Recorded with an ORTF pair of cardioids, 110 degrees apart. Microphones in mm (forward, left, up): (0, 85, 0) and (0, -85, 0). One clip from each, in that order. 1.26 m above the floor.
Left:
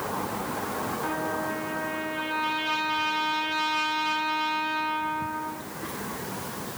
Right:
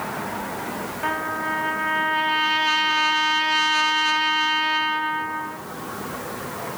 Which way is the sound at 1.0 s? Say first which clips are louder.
Right 8 dB; 60° right.